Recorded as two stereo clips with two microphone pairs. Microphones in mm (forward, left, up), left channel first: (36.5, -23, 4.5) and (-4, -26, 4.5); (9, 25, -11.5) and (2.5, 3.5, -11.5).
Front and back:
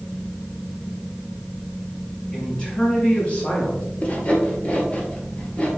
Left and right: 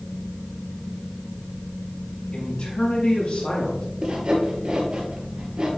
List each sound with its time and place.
2.3 s a man speaking: 75° left, 3.5 m; by 3.8 s 60° left, 4 m
4.0 s sawing: 55° right, 1.8 m